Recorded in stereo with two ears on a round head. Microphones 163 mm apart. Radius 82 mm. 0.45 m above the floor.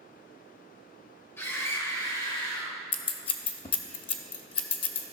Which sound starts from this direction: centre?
A scream, at 1.4 s.